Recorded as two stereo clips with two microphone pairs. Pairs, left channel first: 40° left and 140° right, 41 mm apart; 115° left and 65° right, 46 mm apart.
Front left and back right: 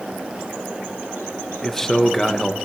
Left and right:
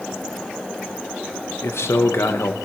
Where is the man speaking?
120° left, 1.2 m.